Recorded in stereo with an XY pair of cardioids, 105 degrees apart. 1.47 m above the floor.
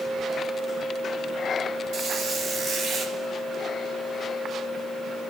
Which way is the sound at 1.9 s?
65° right.